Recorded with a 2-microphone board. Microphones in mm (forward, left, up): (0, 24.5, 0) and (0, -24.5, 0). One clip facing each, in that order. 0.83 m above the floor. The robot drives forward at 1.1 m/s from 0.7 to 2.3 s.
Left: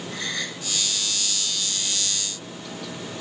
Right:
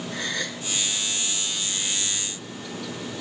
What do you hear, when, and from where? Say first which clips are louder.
0.1 s a gasp: even; 55° right (ahead or behind), 6.5 m